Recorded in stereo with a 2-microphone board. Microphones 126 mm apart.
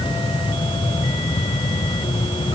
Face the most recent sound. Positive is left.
No sound to turn to.